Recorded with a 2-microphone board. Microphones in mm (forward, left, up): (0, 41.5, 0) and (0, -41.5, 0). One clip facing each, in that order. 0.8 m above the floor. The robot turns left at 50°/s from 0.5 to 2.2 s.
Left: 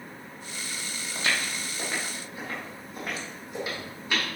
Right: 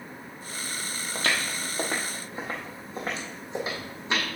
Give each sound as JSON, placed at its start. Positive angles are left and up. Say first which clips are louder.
{"t": 1.1, "sound": "footsteps", "louder": "right 1 dB", "side_deg": -55, "distance_m": 1.6}